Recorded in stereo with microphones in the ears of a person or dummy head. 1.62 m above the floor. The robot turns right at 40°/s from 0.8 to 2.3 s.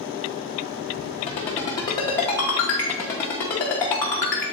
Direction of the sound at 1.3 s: 35° left (ahead or behind).